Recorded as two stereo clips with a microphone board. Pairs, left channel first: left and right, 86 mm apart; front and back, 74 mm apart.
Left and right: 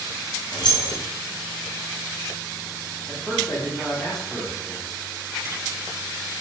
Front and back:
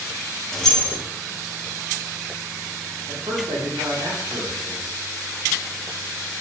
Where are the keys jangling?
80° left, 0.7 m.